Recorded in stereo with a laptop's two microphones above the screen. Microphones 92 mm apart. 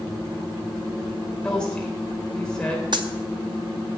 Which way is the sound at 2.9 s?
60° right (ahead or behind).